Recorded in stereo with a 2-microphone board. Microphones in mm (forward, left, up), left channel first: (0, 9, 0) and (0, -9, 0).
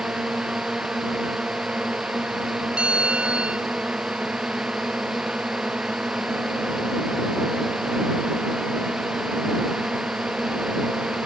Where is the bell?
75° right (ahead or behind).